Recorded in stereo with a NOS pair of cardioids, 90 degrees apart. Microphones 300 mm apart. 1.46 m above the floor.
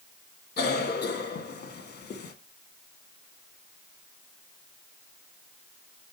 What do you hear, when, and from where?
0.6 s a cough: 35° left, 1.9 m